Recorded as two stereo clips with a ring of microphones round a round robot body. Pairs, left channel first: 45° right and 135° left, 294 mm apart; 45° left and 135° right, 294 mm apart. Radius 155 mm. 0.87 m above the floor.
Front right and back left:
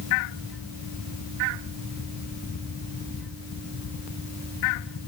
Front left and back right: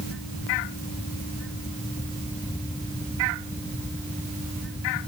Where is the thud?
No thud in this recording.